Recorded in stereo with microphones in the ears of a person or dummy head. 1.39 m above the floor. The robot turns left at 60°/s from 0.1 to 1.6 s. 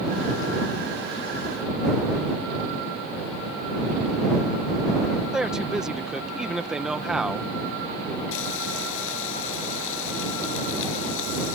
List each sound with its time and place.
5.3 s a man speaking: centre (ahead or behind)
8.3 s frying: 75° left (ahead or behind)